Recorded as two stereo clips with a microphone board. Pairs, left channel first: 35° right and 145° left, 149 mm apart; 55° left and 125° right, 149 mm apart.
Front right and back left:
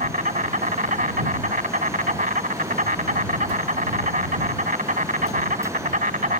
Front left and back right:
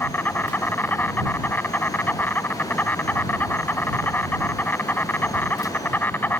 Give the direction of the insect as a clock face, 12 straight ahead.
8 o'clock.